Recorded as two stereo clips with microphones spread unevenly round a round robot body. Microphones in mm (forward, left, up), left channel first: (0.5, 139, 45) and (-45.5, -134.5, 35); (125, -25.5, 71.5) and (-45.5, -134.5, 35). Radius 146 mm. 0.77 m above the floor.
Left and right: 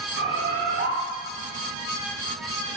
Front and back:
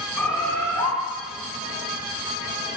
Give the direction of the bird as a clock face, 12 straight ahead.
1 o'clock.